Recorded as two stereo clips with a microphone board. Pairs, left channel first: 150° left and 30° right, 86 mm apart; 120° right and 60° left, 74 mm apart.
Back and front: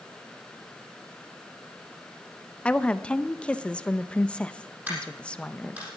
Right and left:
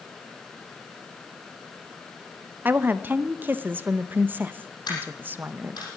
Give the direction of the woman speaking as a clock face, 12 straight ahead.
9 o'clock.